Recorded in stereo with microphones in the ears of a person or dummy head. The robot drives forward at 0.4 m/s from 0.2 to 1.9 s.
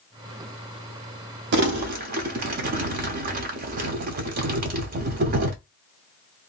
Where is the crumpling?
55° right (ahead or behind), 0.5 m; by 5.5 s 45° right (ahead or behind), 0.6 m.